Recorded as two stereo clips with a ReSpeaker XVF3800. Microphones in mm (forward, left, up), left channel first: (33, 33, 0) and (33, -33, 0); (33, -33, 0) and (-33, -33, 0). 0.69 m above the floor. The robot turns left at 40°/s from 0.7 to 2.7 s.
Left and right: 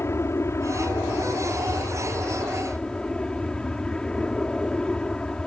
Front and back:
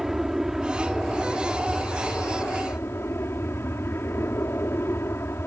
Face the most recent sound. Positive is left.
turn(degrees=20)